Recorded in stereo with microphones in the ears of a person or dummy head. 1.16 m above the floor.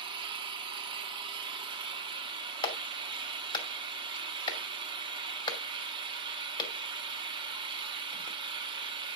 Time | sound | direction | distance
0.0 | an engine running | 25° right (ahead or behind) | 1.2 m
2.6 | a clap | 30° left (ahead or behind) | 2 m